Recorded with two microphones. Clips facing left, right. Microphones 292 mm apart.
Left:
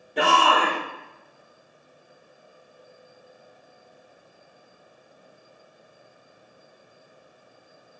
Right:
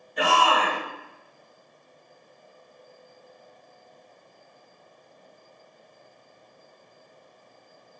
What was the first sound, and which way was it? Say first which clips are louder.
A shout: left 2 dB; 75° left (ahead or behind).